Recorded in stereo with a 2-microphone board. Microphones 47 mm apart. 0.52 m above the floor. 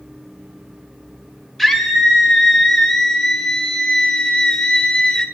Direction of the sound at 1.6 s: 5° left (ahead or behind).